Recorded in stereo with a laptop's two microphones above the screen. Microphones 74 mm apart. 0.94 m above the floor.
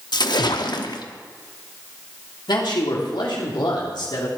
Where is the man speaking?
75° left (ahead or behind), 2.5 m.